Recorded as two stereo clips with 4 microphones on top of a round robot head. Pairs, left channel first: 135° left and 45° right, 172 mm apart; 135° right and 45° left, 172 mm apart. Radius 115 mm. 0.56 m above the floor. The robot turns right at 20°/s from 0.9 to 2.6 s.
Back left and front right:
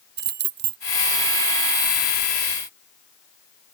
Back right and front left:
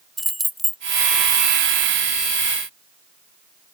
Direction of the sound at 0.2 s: 45° right.